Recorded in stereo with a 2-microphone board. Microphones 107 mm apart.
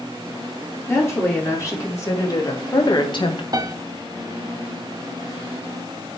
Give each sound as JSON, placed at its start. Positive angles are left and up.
{"t": 0.9, "sound": "a woman speaking", "side_deg": 25, "distance_m": 3.0}
{"t": 3.5, "sound": "a piano", "side_deg": -40, "distance_m": 1.0}